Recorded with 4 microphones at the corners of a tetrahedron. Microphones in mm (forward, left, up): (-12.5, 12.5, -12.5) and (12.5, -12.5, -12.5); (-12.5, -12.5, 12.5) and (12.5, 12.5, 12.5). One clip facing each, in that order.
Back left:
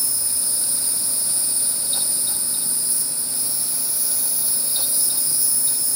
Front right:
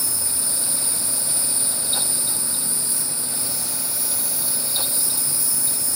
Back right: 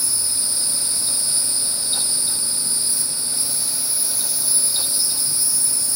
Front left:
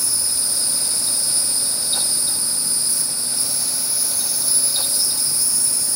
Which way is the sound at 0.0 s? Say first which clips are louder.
Front right 1 dB, front left 1 dB; 75° right.